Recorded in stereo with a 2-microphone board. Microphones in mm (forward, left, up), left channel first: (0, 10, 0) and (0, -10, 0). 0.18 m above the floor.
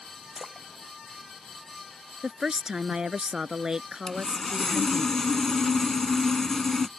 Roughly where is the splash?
Right.